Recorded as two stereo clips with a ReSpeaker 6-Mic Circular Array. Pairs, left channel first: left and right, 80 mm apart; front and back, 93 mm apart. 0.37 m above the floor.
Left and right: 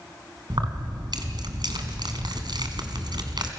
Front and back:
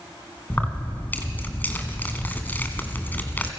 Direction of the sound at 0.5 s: 70° right.